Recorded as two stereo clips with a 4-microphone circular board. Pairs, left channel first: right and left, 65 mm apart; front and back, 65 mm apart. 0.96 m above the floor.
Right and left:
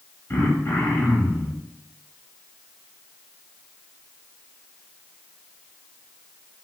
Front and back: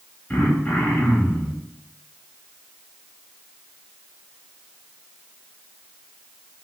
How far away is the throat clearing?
About 1.1 m.